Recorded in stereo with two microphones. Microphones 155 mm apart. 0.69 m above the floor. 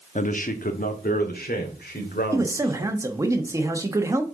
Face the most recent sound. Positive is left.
turn(degrees=-20)  # may be behind; listen again after turning